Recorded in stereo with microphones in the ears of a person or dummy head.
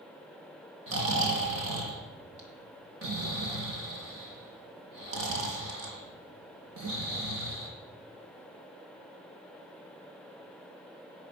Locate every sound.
0.9 s snoring: 70° right (ahead or behind), 3.5 m